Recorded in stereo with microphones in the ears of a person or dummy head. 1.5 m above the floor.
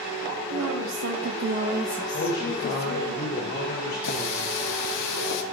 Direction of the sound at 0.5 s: 80° right.